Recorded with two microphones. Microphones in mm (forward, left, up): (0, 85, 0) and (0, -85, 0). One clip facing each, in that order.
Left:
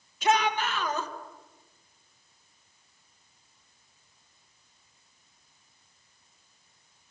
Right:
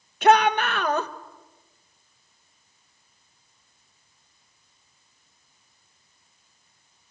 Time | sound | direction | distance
0.2 | a shout | 60° right (ahead or behind) | 1.7 m